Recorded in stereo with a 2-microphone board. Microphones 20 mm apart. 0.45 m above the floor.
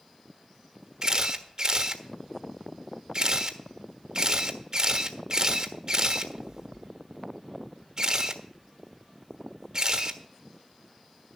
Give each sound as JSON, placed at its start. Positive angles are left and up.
{"t": 1.0, "sound": "a camera shutter", "side_deg": -40, "distance_m": 1.3}